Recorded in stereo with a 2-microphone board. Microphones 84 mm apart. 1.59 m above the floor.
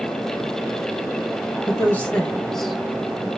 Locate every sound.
1.7 s a woman speaking: 35° left (ahead or behind), 1.4 m; by 3.3 s 20° right (ahead or behind), 1.6 m